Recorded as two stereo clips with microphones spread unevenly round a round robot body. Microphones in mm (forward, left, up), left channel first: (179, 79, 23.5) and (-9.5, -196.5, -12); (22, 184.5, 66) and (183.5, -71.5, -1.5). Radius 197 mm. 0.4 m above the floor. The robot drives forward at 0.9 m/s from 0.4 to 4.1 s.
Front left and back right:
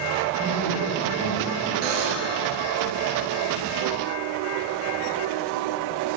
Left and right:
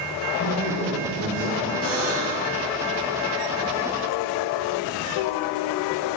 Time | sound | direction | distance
0.4 | a man speaking | 135° left | 7 m
1.8 | a buzzer | 140° right | 1.7 m